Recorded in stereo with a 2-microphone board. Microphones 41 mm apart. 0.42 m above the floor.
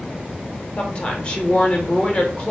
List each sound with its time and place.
0.8 s a woman speaking: 25° left (ahead or behind), 0.9 m